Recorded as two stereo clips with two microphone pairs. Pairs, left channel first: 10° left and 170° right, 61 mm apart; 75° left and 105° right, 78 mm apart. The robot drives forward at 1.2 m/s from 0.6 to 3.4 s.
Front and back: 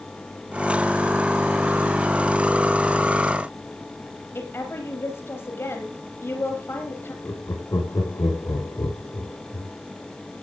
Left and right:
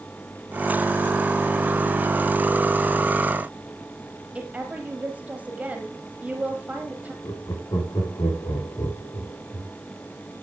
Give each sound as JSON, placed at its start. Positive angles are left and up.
{"t": 4.3, "sound": "a woman speaking", "azimuth_deg": -35, "distance_m": 4.0}
{"t": 7.2, "sound": "laughter", "azimuth_deg": 35, "distance_m": 6.5}